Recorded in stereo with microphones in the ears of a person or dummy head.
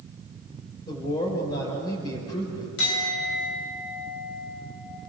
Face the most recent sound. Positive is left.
turn(degrees=75)  # may be behind; listen again after turning